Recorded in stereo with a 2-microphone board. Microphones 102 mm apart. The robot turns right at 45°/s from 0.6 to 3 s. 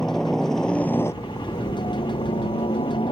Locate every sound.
0.0 s a helicopter: 5° left; by 3.1 s 115° left